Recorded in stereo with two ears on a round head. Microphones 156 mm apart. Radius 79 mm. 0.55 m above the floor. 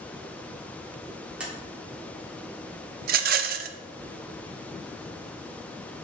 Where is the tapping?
5° right (ahead or behind), 1.5 m.